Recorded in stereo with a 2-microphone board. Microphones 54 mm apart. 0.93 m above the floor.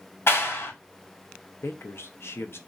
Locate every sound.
0.3 s a clap: 45° left (ahead or behind), 0.8 m
1.6 s a man speaking: 50° left (ahead or behind), 0.5 m